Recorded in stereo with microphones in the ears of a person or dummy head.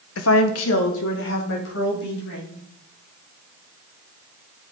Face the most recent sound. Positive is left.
turn(degrees=60)  # may be behind; listen again after turning